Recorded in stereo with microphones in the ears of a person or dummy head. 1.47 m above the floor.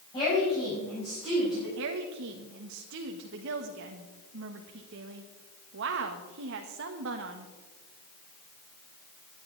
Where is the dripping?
I don't hear dripping.